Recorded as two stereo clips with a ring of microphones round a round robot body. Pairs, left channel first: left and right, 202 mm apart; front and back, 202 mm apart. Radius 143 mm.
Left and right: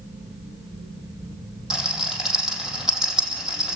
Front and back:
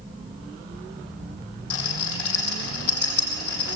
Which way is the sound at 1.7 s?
5° right.